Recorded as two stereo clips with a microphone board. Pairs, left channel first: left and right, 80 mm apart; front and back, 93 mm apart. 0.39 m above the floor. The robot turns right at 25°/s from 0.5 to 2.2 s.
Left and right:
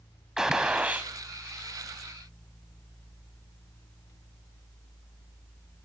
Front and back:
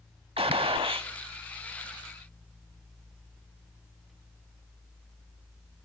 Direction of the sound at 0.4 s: 170° right.